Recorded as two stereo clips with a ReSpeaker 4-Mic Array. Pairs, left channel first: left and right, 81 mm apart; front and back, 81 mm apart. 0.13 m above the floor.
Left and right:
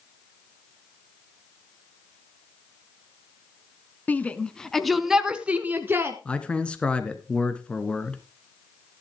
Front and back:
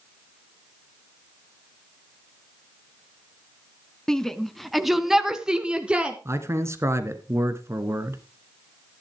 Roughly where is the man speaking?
Behind left.